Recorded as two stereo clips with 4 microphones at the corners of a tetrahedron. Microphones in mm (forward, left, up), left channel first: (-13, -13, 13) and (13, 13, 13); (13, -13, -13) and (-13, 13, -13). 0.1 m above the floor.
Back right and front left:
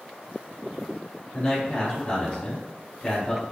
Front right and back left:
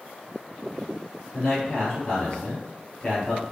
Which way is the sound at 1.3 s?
90° right.